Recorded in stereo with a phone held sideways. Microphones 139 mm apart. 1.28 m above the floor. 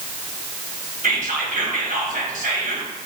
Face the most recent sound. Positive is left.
turn(degrees=-80)